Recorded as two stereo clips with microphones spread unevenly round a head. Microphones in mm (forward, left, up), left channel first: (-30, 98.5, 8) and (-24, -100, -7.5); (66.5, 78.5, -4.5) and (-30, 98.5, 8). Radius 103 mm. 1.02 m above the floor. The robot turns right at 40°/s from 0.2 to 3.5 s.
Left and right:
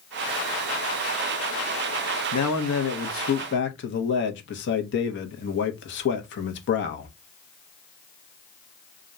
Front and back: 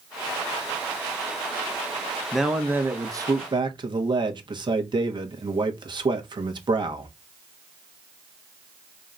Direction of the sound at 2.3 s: 75° left.